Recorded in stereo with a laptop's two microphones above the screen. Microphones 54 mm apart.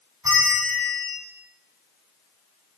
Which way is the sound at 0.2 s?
80° right.